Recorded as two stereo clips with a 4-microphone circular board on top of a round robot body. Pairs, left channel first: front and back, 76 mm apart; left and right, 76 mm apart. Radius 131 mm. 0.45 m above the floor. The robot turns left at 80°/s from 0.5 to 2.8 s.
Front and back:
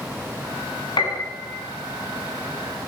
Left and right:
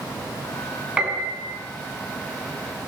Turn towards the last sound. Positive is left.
turn(degrees=-160)